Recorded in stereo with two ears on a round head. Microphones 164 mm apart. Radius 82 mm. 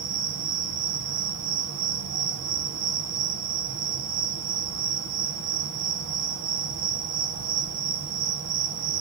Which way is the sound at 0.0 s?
75° right (ahead or behind).